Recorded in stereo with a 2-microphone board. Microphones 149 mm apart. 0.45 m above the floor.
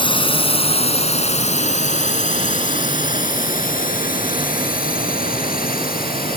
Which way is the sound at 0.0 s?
35° left (ahead or behind).